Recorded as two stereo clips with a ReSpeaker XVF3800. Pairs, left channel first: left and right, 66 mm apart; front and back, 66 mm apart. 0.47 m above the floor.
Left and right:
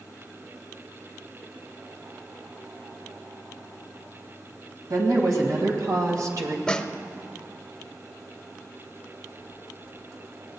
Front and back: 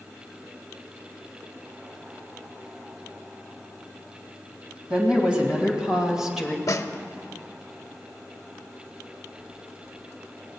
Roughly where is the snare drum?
Ahead.